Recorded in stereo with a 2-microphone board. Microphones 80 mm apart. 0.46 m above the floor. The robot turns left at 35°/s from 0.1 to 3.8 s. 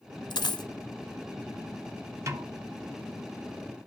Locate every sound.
0.3 s a dropped coin: 70° left (ahead or behind), 0.5 m; by 0.7 s 65° left (ahead or behind), 0.5 m
2.3 s a snare drum: 40° right (ahead or behind), 0.6 m; by 2.5 s 45° right (ahead or behind), 0.6 m